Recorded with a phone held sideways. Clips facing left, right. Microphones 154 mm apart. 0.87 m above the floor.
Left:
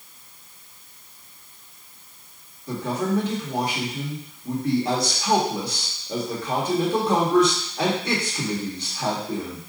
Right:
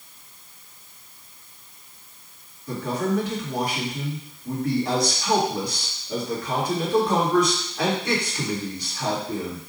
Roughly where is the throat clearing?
No throat clearing in this recording.